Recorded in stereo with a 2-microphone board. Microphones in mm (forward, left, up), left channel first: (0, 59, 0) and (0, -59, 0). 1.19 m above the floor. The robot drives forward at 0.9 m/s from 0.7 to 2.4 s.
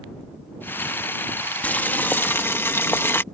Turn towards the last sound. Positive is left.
turn(degrees=20)  # may be behind; listen again after turning